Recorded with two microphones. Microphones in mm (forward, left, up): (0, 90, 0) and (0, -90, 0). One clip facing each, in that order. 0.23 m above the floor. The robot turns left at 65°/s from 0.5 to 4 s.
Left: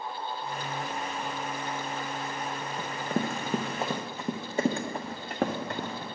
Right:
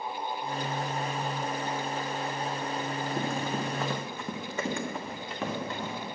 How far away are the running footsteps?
About 1.3 m.